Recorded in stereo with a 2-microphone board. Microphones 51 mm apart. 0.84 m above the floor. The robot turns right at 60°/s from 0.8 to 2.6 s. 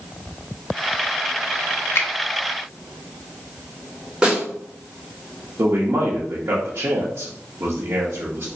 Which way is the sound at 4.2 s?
15° right (ahead or behind).